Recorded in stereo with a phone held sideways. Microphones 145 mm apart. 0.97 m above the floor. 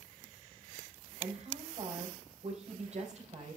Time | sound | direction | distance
1.2 | a woman speaking | 50° right (ahead or behind) | 5.5 m